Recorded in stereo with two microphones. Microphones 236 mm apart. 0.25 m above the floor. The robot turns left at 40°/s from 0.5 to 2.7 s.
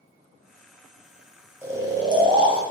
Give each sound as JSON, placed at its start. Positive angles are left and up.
{"t": 1.6, "sound": "snoring", "side_deg": -10, "distance_m": 0.7}